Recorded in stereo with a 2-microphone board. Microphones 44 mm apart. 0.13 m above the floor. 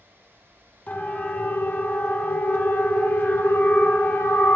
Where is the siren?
40° left (ahead or behind), 6.5 m; by 4.6 s 70° left (ahead or behind), 6.5 m.